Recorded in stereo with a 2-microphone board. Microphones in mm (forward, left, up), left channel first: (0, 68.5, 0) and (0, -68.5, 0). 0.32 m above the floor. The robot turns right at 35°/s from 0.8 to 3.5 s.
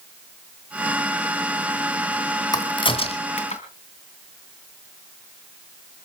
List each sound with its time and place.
2.5 s a crack: 30° left (ahead or behind), 2.5 m; by 3.6 s 55° left (ahead or behind), 2.5 m